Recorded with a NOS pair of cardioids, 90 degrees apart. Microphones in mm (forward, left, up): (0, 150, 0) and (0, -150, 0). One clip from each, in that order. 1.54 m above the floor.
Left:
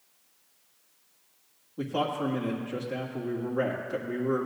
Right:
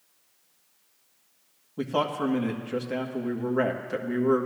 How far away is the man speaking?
About 1.5 m.